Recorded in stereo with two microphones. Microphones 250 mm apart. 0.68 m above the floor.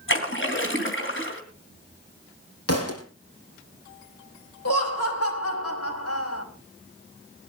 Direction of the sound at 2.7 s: 70° left (ahead or behind).